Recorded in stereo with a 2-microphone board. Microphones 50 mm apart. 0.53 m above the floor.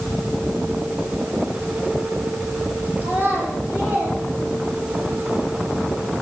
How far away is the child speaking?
About 7 m.